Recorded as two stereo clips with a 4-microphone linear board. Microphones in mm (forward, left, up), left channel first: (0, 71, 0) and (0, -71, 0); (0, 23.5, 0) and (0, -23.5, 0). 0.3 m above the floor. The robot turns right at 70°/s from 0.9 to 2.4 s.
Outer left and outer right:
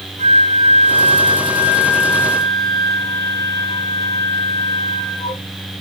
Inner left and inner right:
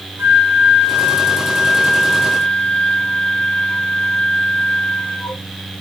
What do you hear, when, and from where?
0.2 s a flute: 75° right, 2.5 m; by 5.4 s 30° left, 2.5 m